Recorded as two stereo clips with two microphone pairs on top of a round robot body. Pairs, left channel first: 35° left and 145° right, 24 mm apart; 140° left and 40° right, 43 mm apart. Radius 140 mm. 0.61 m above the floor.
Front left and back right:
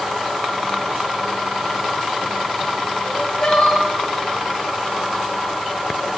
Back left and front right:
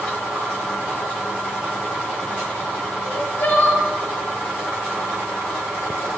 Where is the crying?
90° left, 0.6 m.